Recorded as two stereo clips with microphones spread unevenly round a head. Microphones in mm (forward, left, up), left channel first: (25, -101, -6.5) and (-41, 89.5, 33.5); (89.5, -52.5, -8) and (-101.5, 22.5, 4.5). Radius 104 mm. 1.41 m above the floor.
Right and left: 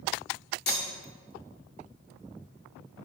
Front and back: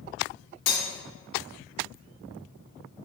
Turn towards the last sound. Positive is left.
turn(degrees=-25)